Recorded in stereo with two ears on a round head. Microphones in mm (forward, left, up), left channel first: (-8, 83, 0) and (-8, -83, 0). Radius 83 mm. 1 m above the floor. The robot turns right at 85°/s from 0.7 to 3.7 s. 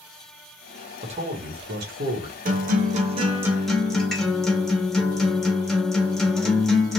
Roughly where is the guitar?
Right.